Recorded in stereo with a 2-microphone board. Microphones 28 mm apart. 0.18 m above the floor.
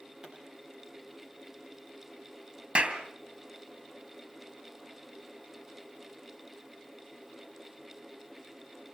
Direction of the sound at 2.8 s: 50° right (ahead or behind).